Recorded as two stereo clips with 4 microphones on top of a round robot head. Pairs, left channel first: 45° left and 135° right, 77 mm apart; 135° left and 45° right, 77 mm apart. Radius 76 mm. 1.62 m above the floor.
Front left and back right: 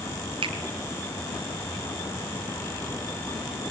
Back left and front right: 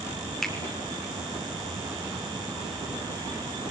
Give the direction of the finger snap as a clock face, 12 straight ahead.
5 o'clock.